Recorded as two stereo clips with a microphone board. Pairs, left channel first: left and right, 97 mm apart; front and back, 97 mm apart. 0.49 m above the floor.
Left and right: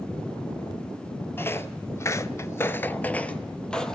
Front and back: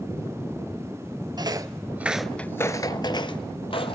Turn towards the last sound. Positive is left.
turn(degrees=10)